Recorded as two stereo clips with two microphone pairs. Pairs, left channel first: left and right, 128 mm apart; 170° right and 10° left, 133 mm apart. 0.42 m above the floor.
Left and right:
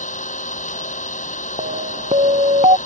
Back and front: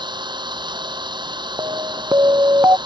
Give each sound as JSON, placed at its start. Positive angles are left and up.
{"t": 0.0, "sound": "an engine running", "azimuth_deg": 65}
{"t": 1.6, "sound": "an alarm", "azimuth_deg": -55}